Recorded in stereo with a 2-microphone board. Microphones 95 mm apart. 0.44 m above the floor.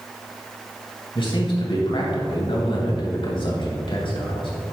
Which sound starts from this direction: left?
A man speaking, at 1.1 s.